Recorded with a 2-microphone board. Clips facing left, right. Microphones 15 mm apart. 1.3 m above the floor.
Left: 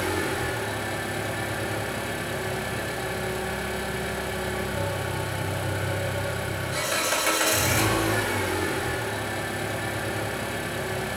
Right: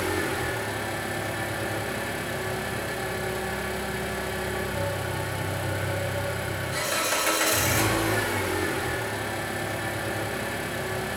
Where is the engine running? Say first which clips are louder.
Even; 15° left (ahead or behind), 1.8 m.